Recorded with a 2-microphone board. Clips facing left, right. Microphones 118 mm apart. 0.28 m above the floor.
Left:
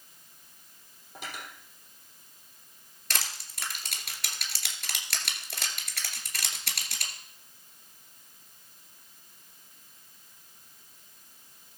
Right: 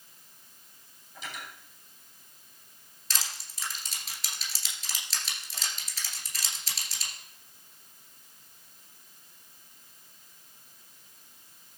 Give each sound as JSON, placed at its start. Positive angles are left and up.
{"t": 1.1, "sound": "cutlery clinking", "side_deg": 55, "distance_m": 5.5}
{"t": 3.1, "sound": "crushing", "side_deg": 65, "distance_m": 2.5}